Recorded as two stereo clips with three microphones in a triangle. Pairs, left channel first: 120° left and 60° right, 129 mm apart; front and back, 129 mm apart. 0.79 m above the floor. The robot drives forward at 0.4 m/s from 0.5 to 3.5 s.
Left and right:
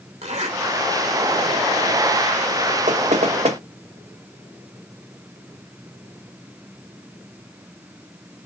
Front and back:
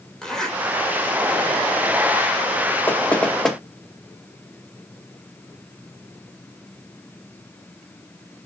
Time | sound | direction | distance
0.2 | a zipper | 85° right | 3 m
2.9 | knocking | 75° right | 1.2 m